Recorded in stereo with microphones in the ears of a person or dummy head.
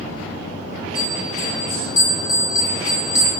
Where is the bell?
20° left (ahead or behind), 5.5 m.